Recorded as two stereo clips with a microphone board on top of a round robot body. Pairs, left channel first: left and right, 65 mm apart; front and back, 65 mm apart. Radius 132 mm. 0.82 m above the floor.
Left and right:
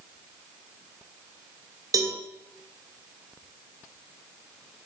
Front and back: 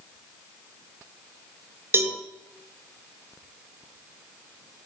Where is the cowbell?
125° right, 2 m.